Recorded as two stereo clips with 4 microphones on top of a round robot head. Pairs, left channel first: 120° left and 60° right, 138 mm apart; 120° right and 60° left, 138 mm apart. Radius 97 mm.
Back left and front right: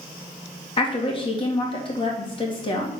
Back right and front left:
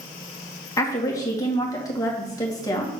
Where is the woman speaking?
175° left, 2 m.